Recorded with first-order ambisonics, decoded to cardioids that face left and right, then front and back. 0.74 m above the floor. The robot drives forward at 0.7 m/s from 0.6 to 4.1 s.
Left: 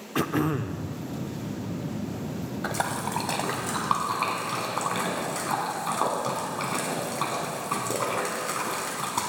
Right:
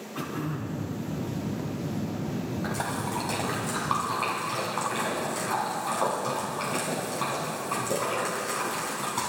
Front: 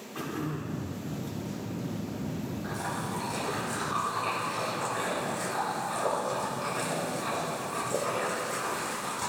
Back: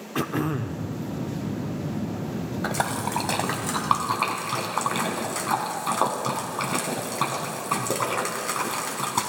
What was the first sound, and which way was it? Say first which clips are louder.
Throat clearing: left 8 dB, back 8 dB; 130° left.